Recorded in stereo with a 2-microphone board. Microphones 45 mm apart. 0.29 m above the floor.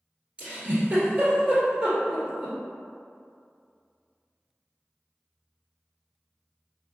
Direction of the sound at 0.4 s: 25° right (ahead or behind).